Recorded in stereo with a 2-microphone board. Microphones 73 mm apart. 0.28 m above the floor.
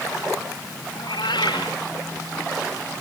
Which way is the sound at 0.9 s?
85° left.